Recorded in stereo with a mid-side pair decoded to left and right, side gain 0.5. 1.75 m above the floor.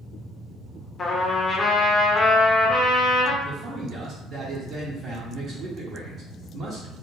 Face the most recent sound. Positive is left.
turn(degrees=-50)